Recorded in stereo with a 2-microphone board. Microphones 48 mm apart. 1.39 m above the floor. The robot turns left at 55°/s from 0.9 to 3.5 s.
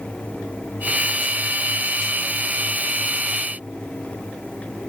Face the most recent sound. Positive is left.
No sound to turn to.